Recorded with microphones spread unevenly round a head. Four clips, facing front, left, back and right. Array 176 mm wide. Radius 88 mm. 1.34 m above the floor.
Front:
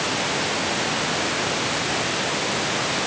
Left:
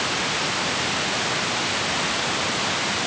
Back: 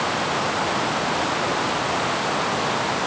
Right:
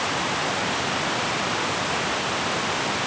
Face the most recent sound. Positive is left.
No sound to turn to.